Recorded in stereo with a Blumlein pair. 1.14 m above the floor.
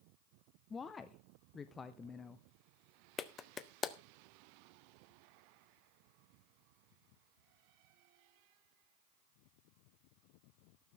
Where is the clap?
20° left, 0.9 m.